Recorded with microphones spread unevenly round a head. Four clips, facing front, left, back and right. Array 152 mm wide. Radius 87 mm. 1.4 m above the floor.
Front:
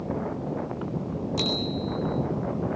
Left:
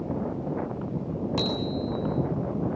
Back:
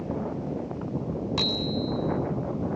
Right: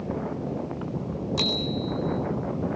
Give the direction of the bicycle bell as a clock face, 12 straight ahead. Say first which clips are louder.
Left 1 dB, front 1 dB; 8 o'clock.